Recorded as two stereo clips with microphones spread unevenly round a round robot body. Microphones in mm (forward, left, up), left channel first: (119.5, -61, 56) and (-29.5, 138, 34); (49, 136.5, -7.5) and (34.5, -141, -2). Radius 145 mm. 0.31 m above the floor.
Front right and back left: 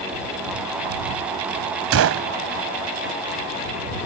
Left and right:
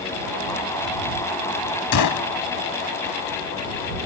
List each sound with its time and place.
1.9 s a gunshot: 110° left